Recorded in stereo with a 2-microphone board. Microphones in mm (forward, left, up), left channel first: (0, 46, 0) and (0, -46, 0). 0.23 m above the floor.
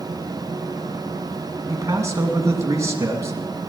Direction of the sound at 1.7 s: 30° right (ahead or behind).